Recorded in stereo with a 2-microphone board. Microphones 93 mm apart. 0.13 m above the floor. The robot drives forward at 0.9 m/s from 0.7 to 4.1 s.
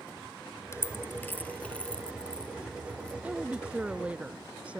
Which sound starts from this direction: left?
A dropped coin, at 0.7 s.